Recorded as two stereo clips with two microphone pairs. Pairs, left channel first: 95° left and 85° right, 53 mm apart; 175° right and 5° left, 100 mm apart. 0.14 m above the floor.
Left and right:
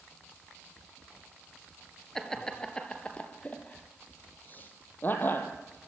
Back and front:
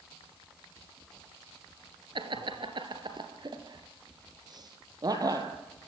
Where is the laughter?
15° left, 2 m; by 5.5 s 50° left, 3.5 m.